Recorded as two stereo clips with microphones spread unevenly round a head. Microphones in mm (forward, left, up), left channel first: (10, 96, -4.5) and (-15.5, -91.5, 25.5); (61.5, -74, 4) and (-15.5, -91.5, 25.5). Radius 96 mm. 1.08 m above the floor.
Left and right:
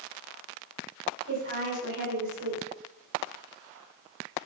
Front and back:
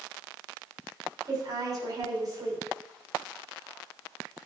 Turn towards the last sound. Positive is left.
turn(degrees=-125)